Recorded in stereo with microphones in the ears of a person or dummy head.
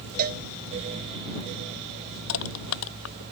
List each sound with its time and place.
0.2 s a cowbell: 50° right (ahead or behind)
2.3 s crushing: 75° left (ahead or behind)